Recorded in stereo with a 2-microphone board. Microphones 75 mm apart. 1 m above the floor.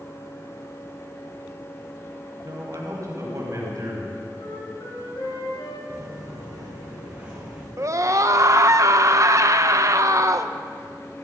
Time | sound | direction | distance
2.4 | a man speaking | 50° right (ahead or behind) | 5 m
4.4 | a flute | 70° left (ahead or behind) | 4 m
5.9 | footsteps | 30° right (ahead or behind) | 4.5 m
7.8 | a scream | 40° right (ahead or behind) | 0.7 m